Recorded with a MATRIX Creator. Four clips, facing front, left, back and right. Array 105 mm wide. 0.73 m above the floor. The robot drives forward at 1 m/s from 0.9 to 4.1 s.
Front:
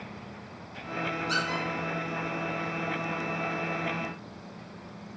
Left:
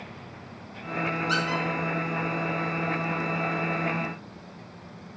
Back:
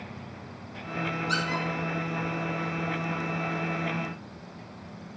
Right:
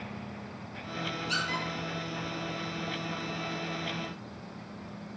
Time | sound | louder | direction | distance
1.3 | a squeak | left 5 dB, back 1 dB | 80° left | 6 m